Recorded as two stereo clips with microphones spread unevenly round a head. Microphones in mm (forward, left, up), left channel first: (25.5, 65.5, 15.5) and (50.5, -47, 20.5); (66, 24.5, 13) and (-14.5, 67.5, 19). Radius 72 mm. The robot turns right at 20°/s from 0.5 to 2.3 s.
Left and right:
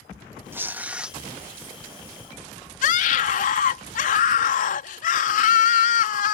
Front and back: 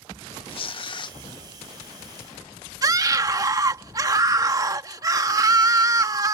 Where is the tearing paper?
5° right; by 1.2 s 5° left.